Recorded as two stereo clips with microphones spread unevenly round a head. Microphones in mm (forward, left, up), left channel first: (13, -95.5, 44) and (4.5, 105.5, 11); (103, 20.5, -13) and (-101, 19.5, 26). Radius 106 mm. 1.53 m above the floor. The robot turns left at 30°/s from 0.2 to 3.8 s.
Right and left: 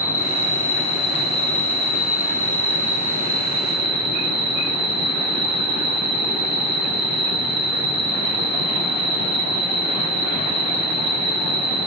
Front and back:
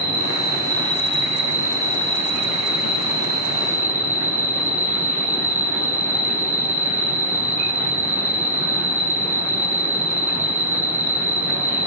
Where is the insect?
105° right, 1.6 m; by 11.9 s 145° left, 1.6 m.